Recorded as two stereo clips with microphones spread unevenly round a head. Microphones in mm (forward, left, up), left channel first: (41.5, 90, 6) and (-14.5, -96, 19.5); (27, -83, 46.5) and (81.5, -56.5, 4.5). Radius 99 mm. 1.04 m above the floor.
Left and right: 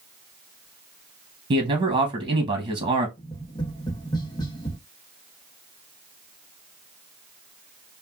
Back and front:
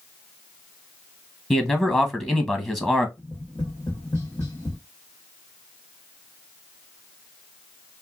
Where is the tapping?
145° left, 0.6 m.